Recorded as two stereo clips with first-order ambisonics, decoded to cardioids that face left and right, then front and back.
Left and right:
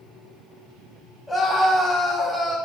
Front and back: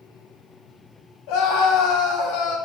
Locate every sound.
1.3 s a scream: straight ahead, 3.5 m; by 2.6 s 10° right, 3 m